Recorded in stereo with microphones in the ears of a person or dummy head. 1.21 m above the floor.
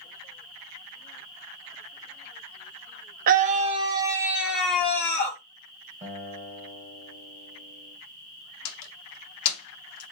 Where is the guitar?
35° right (ahead or behind), 1.9 m.